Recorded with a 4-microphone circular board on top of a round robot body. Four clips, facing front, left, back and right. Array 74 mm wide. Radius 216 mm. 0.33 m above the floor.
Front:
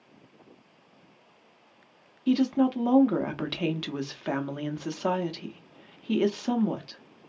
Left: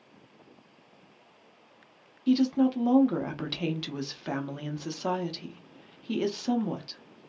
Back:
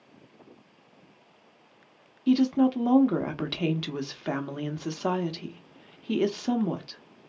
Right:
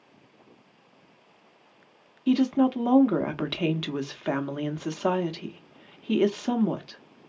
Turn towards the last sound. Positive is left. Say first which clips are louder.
# right 2 dB, back 1 dB
turn(degrees=-80)